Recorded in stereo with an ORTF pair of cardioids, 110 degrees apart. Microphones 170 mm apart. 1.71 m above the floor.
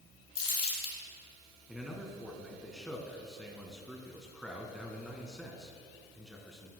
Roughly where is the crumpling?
Ahead left.